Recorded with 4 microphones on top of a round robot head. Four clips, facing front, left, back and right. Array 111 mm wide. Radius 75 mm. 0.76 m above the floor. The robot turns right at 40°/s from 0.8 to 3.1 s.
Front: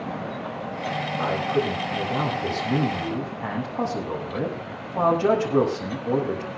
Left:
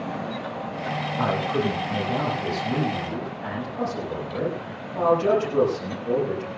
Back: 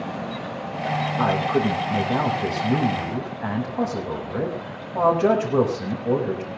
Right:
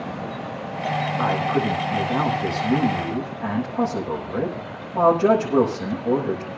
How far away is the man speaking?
About 6.5 m.